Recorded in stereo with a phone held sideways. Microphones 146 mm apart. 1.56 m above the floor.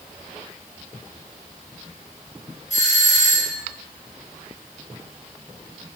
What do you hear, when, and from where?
2.7 s a doorbell: 55° left (ahead or behind), 4.5 m